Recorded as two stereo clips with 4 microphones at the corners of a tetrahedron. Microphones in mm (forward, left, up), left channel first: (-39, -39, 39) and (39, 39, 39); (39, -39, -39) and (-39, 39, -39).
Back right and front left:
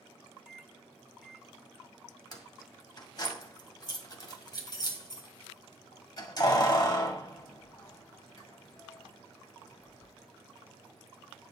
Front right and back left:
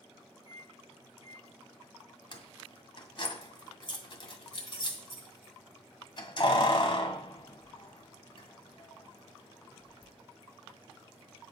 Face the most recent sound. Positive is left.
turn(degrees=-85)